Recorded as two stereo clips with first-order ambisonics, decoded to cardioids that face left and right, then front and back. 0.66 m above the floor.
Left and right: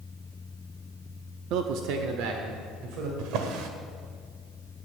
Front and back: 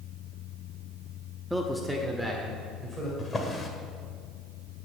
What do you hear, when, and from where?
1.5 s a man speaking: 95° right, 0.7 m
3.2 s a drawer: 75° right, 1.4 m